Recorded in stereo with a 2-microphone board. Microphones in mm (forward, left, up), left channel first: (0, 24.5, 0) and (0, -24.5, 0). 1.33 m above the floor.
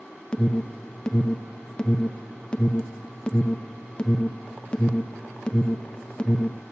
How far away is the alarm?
About 1.0 m.